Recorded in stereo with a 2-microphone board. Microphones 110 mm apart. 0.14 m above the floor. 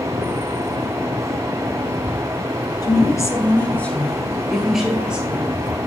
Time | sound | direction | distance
2.8 | a woman speaking | 40° left (ahead or behind) | 1.5 m